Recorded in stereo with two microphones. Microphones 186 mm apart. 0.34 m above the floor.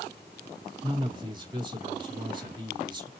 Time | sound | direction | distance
0.8 | a man speaking | 25° right (ahead or behind) | 4 m